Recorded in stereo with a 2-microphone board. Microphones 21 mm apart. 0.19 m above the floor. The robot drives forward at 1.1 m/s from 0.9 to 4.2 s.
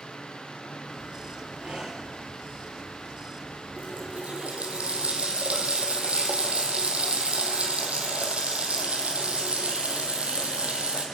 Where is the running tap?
65° right (ahead or behind), 5 m; by 11.1 s 70° right (ahead or behind), 5 m.